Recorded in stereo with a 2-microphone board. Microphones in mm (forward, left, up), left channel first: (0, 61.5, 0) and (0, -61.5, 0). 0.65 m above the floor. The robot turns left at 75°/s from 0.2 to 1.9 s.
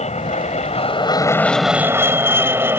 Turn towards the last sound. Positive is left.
turn(degrees=-20)  # may be behind; listen again after turning